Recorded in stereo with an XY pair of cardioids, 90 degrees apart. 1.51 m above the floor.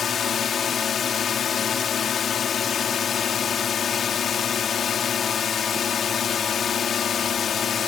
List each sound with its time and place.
0.0 s a drone: 55° left